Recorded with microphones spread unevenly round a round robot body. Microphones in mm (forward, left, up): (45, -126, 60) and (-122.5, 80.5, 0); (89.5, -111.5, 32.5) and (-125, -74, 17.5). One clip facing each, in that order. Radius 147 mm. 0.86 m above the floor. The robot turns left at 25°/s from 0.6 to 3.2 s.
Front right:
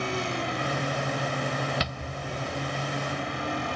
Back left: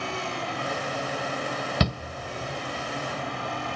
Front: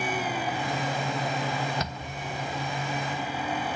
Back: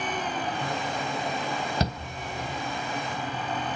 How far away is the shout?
About 0.6 m.